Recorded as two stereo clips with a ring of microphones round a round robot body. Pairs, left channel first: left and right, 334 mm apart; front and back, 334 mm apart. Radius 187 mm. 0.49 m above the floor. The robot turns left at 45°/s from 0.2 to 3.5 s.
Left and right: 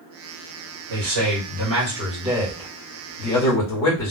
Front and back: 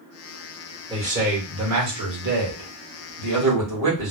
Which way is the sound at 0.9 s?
105° right.